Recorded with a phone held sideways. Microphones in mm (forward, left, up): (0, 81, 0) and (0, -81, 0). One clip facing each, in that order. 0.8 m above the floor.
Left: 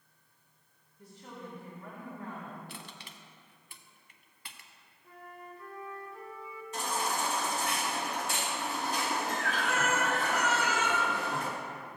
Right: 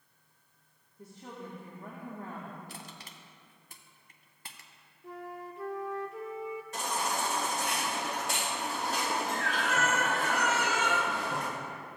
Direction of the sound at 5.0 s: 85° right.